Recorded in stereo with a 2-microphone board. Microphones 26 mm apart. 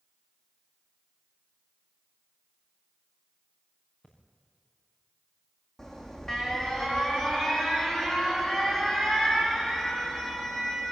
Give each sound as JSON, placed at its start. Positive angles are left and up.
{"t": 4.0, "sound": "breathing", "side_deg": 50, "distance_m": 6.5}
{"t": 5.8, "sound": "an alarm", "side_deg": 25, "distance_m": 4.5}